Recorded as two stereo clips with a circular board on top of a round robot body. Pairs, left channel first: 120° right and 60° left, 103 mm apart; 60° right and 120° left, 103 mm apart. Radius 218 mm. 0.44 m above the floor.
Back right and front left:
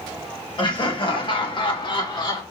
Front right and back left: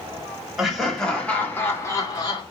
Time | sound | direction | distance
0.6 | laughter | 155° right | 2 m